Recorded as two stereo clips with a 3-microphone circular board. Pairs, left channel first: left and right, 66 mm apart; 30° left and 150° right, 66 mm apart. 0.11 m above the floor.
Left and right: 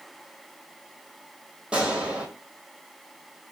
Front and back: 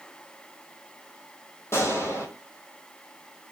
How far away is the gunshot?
About 1.3 m.